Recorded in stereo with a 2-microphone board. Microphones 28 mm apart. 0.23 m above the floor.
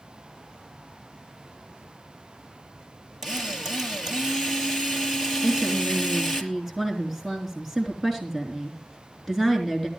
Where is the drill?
10° right (ahead or behind), 4.5 m.